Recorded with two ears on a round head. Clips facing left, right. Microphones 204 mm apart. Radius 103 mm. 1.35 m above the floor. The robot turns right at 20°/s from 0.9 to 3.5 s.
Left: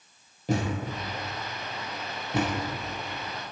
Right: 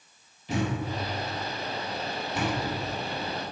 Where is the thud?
40° left (ahead or behind), 3.5 m; by 2.5 s 70° left (ahead or behind), 3.5 m.